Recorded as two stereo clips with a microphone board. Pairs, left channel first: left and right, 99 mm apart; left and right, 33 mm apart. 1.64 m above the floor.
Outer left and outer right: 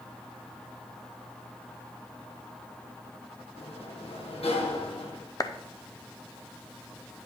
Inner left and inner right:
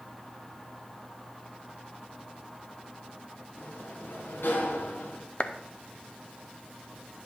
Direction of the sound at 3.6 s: 80° left.